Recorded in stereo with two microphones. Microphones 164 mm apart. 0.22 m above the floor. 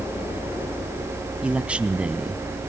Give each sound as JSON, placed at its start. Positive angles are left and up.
{"t": 1.4, "sound": "a man speaking", "side_deg": -5, "distance_m": 1.5}